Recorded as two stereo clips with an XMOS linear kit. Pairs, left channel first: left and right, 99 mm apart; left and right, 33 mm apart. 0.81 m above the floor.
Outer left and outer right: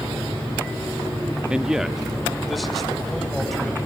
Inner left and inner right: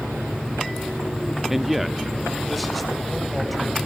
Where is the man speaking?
10° right (ahead or behind), 0.9 m; by 3.8 s 5° left (ahead or behind), 4 m.